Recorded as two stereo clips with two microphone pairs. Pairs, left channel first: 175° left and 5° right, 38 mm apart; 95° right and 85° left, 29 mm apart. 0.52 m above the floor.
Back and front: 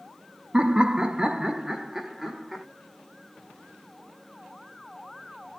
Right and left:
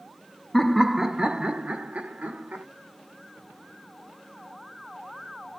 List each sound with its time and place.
0.5 s laughter: 15° right, 0.7 m; by 2.6 s 75° left, 1.4 m